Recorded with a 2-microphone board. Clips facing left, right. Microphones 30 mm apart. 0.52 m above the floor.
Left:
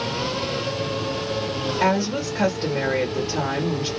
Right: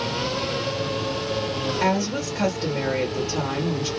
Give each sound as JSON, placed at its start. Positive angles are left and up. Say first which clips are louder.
{"t": 1.8, "sound": "a woman speaking", "louder": "left 3 dB", "side_deg": 40, "distance_m": 1.6}